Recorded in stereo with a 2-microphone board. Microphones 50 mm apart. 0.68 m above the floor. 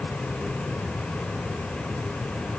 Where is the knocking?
I don't hear knocking.